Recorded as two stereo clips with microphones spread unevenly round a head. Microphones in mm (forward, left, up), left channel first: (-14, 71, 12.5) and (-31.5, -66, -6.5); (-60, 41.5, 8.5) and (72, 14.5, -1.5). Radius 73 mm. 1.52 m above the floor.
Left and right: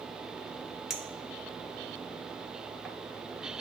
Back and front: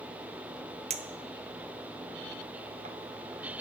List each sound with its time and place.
0.9 s a clink: 5° right, 0.6 m